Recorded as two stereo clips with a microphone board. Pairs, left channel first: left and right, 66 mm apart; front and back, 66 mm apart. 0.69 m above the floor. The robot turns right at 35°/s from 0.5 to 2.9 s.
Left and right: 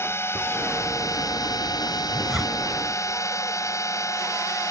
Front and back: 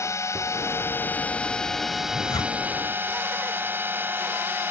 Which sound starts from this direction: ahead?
A zipper, at 2.1 s.